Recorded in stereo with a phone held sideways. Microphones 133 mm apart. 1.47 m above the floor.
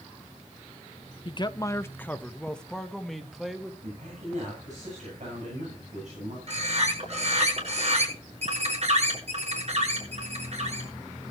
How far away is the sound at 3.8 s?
About 9.5 m.